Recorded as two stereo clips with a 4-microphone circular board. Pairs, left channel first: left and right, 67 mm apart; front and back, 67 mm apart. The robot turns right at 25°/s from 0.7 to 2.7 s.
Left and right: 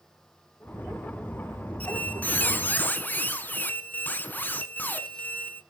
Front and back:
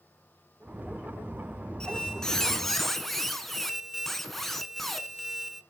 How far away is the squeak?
About 1.0 m.